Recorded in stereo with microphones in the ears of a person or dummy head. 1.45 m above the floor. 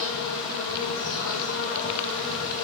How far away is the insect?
About 3.5 m.